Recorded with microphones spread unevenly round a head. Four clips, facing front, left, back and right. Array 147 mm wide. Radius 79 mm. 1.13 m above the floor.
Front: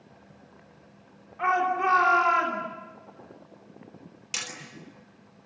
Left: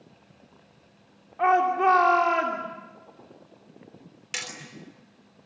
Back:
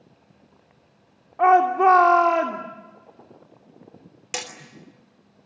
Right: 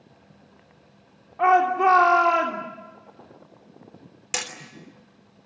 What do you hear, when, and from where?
1.4 s a shout: 175° right, 2.5 m
4.3 s hammering: 150° right, 3 m